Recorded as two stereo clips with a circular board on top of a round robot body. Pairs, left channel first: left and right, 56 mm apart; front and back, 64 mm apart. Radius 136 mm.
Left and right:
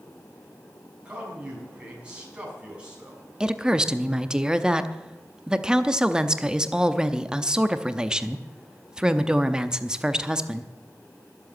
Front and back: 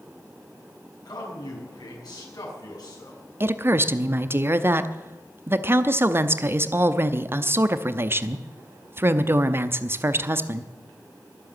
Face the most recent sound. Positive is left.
turn(degrees=-160)